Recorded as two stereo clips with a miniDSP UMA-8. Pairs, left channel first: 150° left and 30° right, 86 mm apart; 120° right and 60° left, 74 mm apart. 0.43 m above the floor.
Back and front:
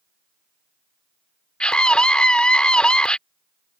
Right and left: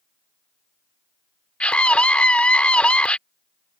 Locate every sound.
1.6 s a scream: 160° right